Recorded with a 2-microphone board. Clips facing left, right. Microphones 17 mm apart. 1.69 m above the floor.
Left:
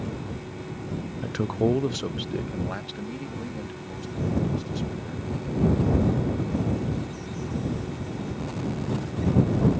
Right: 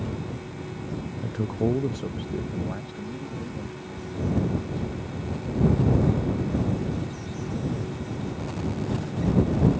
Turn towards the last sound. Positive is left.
turn(degrees=65)  # may be behind; listen again after turning